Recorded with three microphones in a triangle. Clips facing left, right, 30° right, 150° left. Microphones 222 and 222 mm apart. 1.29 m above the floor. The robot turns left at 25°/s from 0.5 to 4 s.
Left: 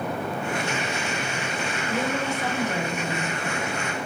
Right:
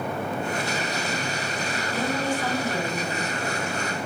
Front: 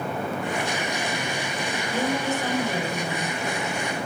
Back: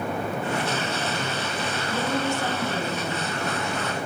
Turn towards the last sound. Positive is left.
turn(degrees=-20)